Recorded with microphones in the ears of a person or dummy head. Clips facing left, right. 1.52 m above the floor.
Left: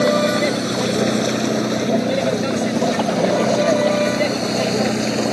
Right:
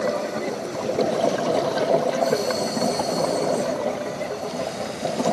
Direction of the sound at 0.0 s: 85° left.